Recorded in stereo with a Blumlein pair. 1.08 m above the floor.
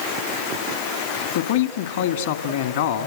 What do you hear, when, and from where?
1.4 s a man speaking: 60° left, 2 m